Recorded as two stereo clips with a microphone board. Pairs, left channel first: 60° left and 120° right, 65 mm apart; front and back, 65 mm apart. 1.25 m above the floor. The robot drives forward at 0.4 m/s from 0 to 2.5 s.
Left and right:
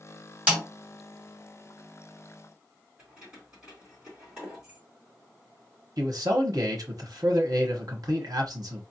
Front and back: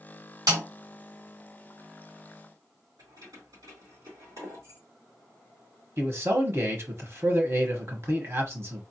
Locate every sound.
0.5 s a snare drum: 170° left, 2.5 m
3.0 s keys jangling: 170° left, 3 m
6.0 s a man speaking: 135° right, 1.0 m